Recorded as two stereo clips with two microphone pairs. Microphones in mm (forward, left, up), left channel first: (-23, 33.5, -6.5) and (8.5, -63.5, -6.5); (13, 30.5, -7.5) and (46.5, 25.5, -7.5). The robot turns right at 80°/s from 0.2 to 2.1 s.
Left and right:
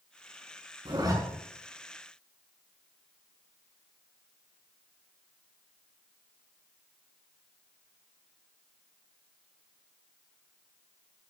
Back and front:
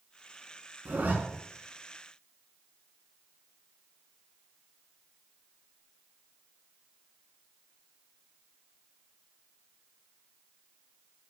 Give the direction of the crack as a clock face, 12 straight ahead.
I don't hear a crack.